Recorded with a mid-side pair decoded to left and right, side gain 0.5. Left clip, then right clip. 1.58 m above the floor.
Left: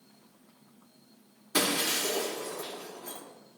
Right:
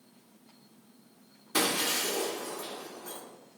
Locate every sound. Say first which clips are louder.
1.5 s breaking glass: even; 5° left, 3 m